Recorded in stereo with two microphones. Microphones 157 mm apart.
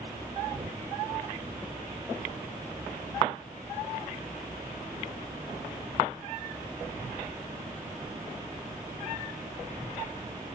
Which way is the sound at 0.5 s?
40° right (ahead or behind).